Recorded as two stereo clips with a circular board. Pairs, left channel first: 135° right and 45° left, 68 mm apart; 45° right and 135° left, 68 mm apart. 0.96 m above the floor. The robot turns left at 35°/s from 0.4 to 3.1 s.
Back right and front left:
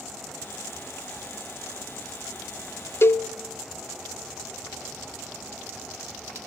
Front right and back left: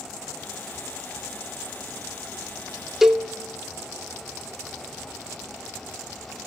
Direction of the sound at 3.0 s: 140° right.